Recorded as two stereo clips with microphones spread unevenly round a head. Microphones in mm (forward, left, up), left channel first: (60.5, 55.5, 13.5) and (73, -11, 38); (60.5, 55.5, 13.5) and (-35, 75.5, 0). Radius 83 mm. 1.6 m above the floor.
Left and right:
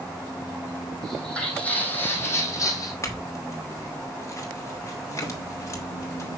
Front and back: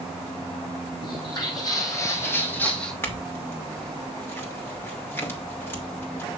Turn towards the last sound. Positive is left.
turn(degrees=50)